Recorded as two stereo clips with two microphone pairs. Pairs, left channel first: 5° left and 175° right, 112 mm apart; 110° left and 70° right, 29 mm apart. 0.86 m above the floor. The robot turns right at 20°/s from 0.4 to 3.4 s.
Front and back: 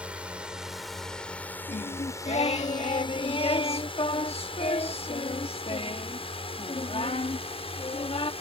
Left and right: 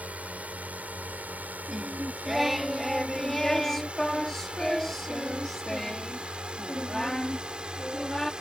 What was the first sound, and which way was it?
A drone, 95° right.